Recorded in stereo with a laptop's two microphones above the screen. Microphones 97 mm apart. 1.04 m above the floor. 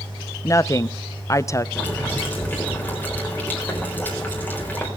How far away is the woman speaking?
About 0.6 m.